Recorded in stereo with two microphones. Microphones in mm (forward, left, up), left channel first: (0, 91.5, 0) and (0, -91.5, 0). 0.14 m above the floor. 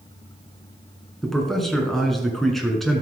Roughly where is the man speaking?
Centre.